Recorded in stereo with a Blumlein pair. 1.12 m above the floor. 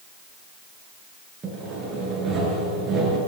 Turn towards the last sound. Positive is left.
turn(degrees=-20)